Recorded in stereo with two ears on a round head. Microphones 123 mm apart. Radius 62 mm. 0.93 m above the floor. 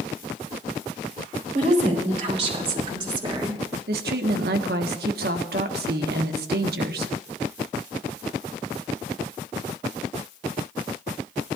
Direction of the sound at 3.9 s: 80° right.